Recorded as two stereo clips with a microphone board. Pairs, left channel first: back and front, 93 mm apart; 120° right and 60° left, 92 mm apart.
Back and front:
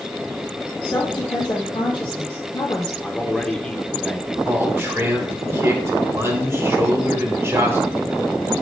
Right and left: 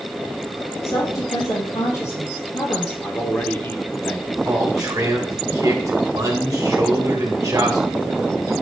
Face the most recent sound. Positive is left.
turn(degrees=45)